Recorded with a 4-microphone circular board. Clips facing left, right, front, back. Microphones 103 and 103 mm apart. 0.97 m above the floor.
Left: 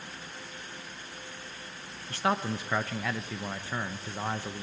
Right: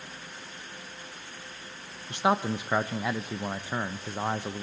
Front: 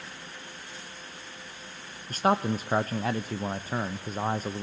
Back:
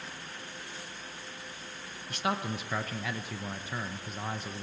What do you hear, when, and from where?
2.1 s a man speaking: 25° right, 0.5 m